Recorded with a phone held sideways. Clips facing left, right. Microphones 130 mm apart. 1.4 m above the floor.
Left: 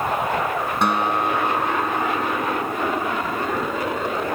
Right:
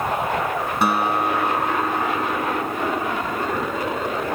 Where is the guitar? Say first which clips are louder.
Right 1 dB; 5° right (ahead or behind).